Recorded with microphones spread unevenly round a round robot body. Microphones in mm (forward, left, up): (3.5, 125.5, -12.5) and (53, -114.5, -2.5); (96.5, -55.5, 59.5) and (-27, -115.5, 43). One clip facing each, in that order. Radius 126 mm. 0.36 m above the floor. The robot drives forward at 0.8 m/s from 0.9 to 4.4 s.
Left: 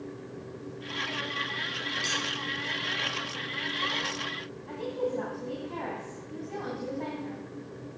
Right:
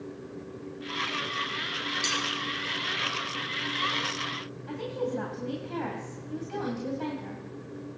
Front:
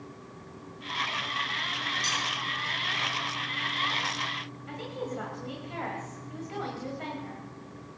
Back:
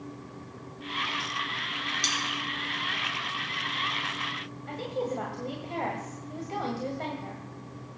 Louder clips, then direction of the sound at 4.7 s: Even, back 5 dB; 115° right.